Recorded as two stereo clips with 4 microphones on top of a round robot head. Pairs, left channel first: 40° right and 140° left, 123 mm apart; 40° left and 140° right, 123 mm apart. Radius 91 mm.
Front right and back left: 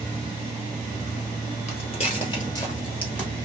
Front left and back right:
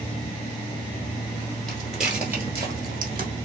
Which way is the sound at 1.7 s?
40° right.